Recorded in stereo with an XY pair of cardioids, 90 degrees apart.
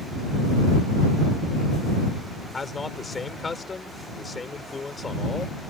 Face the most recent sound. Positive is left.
turn(degrees=30)